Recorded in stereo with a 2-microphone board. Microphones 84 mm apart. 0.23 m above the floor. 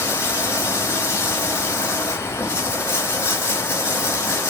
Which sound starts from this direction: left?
Running water, at 0.0 s.